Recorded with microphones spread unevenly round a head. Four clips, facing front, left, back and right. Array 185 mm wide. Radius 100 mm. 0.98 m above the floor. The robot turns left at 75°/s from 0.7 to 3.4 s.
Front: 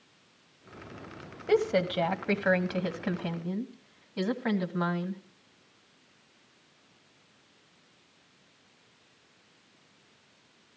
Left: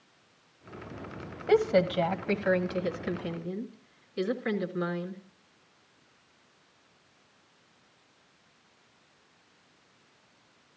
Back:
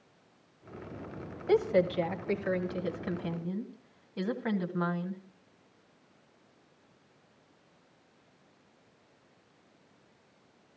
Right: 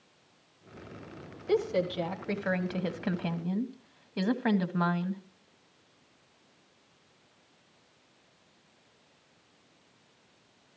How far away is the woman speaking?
About 1.6 m.